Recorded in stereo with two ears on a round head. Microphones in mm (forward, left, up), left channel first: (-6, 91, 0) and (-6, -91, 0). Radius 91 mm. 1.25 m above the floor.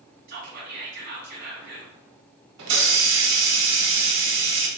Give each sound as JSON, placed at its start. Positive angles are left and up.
{"t": 0.3, "sound": "whispering", "side_deg": -45, "distance_m": 0.8}
{"t": 2.6, "sound": "a hiss", "side_deg": -60, "distance_m": 0.7}